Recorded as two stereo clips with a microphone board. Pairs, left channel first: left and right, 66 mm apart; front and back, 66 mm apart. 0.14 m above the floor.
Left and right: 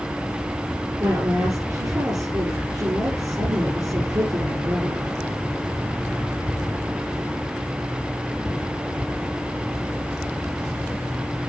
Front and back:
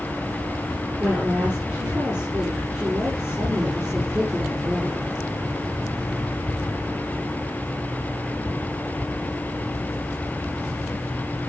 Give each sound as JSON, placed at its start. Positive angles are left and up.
{"t": 1.0, "sound": "a woman speaking", "azimuth_deg": -105, "distance_m": 4.0}